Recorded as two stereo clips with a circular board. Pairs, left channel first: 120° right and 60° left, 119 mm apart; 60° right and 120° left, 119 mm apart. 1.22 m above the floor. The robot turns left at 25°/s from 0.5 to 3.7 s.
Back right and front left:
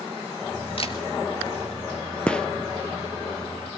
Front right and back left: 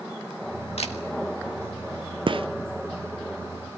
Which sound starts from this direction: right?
A camera shutter, at 0.8 s.